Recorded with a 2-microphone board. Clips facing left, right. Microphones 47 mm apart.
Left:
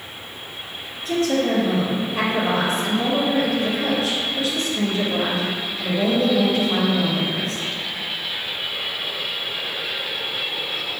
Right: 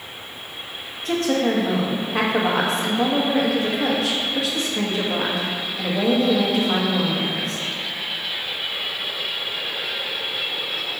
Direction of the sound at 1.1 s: 75° right (ahead or behind).